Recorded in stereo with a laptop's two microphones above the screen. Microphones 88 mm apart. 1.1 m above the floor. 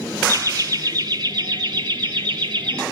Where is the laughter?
40° right (ahead or behind), 0.7 m; by 2.8 s 60° right (ahead or behind), 2.0 m.